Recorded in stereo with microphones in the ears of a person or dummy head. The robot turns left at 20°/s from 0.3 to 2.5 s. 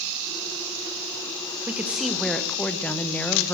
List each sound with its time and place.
1.7 s a woman speaking: 10° right (ahead or behind), 0.8 m; by 3.5 s 5° left (ahead or behind), 0.8 m